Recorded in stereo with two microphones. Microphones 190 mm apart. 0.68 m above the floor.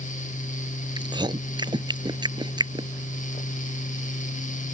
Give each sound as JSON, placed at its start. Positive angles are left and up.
{"t": 1.0, "sound": "chewing", "side_deg": -25}